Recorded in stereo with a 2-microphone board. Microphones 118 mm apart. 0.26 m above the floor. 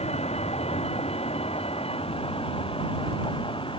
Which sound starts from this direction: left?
A vehicle, at 0.0 s.